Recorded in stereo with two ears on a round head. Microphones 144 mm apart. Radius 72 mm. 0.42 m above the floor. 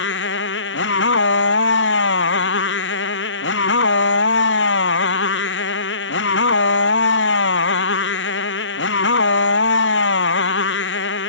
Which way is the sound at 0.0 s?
85° left.